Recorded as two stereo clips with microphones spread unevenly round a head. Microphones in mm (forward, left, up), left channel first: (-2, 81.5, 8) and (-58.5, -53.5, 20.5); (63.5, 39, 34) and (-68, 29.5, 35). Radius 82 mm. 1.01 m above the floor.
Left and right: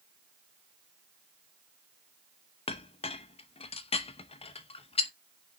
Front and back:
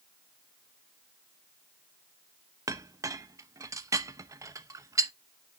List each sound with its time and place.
2.7 s a clink: 115° left, 0.8 m